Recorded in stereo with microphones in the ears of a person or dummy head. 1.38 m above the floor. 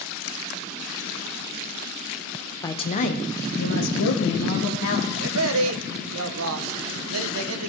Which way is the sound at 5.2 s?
75° right (ahead or behind).